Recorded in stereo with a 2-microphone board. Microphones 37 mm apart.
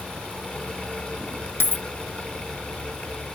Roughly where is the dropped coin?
Left.